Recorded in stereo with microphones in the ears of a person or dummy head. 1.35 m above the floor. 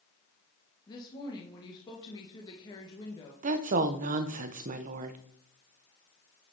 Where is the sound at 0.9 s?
25° left (ahead or behind), 1.2 m.